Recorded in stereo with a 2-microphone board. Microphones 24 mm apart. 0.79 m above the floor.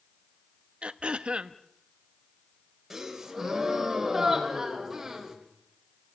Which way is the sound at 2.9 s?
10° right (ahead or behind).